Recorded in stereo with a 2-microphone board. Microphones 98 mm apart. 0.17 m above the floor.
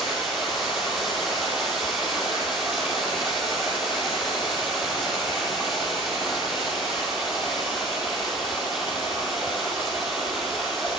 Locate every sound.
0.0 s running water: 5° right (ahead or behind), 4 m